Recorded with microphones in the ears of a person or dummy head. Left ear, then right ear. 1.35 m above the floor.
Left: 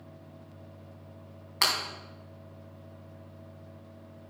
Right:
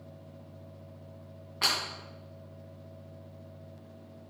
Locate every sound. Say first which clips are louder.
1.6 s breaking glass: left 2 dB; 65° left (ahead or behind), 3.5 m